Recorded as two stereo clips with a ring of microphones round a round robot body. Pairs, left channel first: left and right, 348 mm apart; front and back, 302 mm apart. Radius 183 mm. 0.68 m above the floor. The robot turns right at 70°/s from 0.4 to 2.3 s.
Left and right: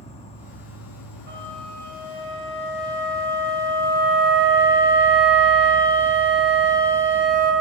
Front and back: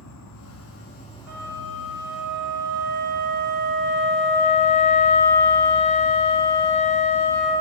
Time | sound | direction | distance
0.0 | an insect | 20° left | 1.1 m
1.3 | a flute | 150° right | 2 m